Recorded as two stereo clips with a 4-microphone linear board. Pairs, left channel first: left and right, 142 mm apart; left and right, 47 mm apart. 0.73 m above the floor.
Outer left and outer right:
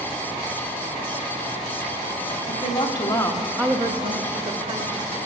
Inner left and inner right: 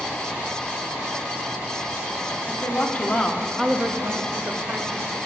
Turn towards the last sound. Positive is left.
turn(degrees=-75)  # may be behind; listen again after turning